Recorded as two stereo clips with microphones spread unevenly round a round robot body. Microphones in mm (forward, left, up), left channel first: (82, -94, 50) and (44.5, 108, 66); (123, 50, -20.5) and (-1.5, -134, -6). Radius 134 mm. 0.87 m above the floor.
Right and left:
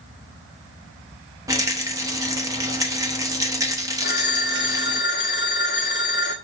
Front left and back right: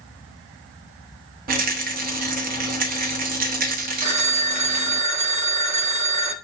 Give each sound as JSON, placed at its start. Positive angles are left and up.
{"t": 1.5, "sound": "a rattle", "azimuth_deg": 175, "distance_m": 0.7}
{"t": 4.0, "sound": "a phone ringing", "azimuth_deg": -130, "distance_m": 1.4}